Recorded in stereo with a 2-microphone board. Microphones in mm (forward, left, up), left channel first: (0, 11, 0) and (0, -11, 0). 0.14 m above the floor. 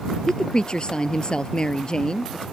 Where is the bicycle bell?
I don't hear a bicycle bell.